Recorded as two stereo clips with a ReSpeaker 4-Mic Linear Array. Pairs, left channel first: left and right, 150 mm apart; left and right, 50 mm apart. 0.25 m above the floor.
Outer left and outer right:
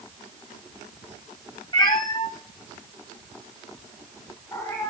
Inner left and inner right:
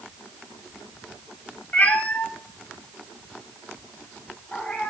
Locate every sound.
1.7 s a cat meowing: 30° left (ahead or behind), 1.1 m; by 4.9 s 15° left (ahead or behind), 3.5 m